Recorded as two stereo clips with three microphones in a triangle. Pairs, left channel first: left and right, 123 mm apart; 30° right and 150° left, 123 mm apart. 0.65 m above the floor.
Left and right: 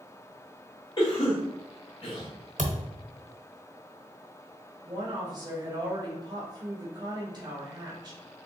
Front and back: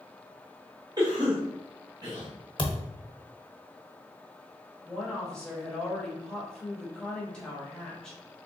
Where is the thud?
80° right, 0.9 m.